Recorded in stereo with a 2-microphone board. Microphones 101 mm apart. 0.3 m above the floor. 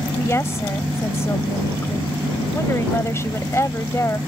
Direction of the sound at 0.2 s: 30° left (ahead or behind).